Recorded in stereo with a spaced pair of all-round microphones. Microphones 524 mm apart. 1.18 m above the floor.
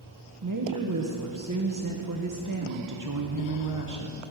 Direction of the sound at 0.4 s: 35° right (ahead or behind).